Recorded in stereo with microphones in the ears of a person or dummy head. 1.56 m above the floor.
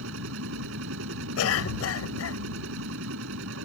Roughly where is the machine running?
Right.